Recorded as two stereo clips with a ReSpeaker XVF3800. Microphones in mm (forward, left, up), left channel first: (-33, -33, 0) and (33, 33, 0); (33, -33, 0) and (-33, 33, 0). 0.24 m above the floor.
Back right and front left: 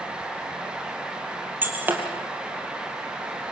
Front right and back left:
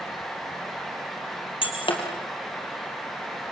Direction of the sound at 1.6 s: 25° right.